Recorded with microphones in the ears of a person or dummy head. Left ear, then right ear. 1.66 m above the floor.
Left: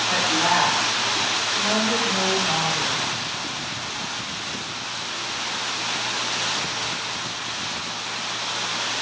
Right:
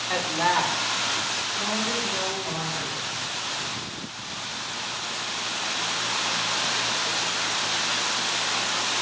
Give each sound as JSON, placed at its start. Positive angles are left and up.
{"t": 0.1, "sound": "a woman speaking", "side_deg": -25, "distance_m": 1.3}